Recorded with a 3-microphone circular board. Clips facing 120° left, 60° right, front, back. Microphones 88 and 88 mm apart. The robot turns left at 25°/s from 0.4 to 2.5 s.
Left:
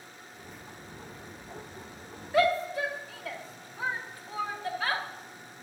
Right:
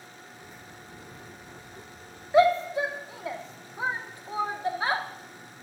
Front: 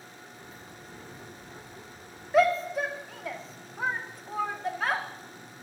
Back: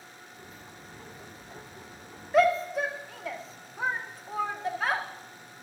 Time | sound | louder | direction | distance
2.3 | a shout | right 5 dB, even | 85° right | 0.8 m